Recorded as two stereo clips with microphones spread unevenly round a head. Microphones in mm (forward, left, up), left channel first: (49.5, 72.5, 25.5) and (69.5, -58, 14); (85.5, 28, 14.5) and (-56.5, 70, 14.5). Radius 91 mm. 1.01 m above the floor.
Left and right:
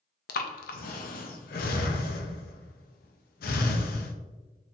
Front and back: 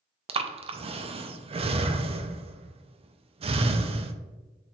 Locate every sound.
0.3 s breathing: 110° left, 0.5 m